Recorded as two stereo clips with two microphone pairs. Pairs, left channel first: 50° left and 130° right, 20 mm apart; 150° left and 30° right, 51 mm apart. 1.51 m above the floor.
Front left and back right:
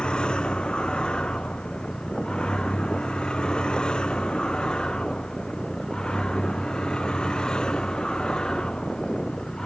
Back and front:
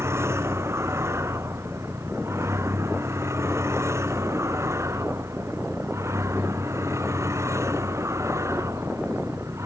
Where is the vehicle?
5° left; by 9.7 s 5° right.